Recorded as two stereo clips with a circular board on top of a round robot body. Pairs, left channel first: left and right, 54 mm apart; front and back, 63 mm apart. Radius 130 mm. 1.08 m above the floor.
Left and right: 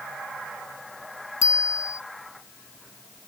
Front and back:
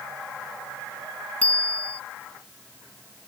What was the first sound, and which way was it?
A bicycle bell, 70° left.